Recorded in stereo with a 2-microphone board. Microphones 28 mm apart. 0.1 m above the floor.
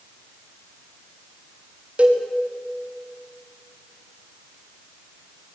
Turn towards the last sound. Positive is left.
turn(degrees=-45)  # may be behind; listen again after turning